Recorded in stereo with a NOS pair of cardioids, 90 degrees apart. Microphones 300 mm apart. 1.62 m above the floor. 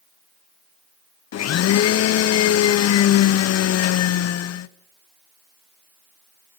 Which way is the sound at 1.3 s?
60° left.